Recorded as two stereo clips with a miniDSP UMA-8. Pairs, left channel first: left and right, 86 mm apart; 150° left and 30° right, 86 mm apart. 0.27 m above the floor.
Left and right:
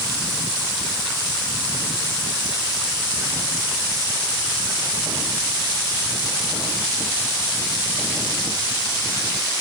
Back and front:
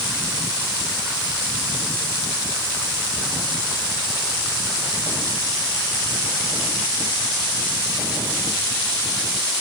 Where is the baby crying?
No baby crying in this recording.